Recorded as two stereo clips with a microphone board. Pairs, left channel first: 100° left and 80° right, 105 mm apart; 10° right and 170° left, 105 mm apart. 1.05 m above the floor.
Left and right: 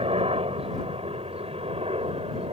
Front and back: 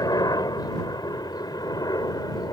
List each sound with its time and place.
0.0 s a helicopter: 60° right